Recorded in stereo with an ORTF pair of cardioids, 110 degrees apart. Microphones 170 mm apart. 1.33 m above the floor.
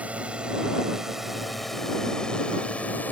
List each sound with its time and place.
0.0 s a drone: 10° right; by 3.1 s 10° left